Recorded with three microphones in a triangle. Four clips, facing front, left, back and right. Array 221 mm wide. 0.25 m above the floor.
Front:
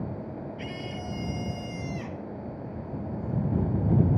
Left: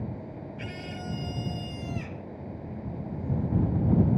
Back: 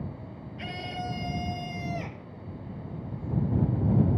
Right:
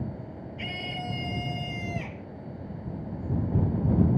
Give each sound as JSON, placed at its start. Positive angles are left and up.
{"t": 0.6, "sound": "a scream", "azimuth_deg": -160}